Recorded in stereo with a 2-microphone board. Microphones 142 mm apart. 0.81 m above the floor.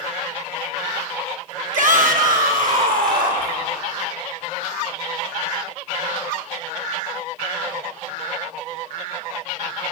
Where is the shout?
60° right (ahead or behind), 1.5 m; by 3.6 s 75° right (ahead or behind), 3 m.